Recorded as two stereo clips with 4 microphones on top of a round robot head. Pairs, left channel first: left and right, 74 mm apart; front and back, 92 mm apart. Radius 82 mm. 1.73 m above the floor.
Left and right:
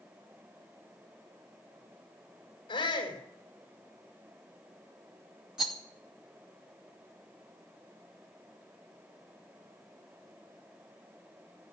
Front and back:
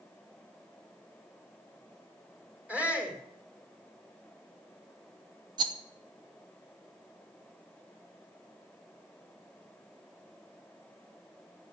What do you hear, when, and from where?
2.7 s a shout: 105° left, 5.5 m
5.6 s a rattle: 170° right, 0.8 m